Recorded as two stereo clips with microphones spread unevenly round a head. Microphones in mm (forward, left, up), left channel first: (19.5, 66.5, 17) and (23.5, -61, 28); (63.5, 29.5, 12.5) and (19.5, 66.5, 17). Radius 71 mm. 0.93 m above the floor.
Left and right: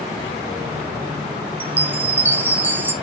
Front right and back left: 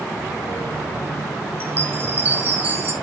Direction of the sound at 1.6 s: 160° right.